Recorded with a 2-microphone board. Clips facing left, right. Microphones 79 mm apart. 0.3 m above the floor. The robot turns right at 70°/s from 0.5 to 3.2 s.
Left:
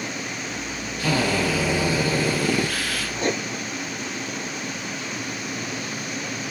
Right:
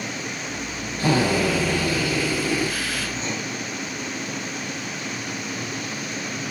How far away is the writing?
About 1.9 m.